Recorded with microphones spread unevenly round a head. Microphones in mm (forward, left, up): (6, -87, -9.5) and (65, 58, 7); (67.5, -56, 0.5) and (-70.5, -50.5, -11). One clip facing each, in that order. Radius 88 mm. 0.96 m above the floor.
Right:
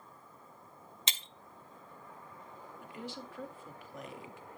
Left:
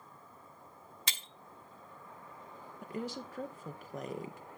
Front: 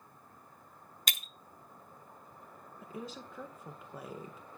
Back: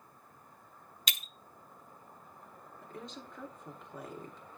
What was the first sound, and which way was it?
Breaking glass, 40° right.